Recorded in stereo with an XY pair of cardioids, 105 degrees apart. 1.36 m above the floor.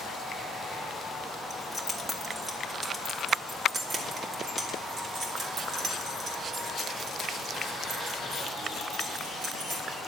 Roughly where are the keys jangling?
Ahead.